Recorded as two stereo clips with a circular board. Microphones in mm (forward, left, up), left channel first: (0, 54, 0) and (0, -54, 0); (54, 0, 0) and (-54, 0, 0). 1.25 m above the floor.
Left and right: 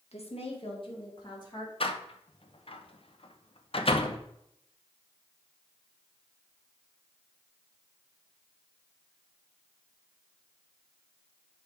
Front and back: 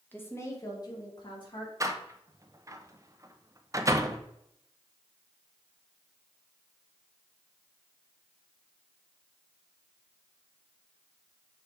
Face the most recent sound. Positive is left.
turn(degrees=120)